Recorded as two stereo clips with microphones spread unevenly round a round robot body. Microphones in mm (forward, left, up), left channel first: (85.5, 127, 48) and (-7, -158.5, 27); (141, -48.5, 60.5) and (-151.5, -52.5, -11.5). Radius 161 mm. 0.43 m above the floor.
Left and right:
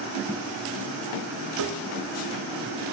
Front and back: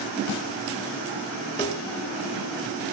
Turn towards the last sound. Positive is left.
turn(degrees=-75)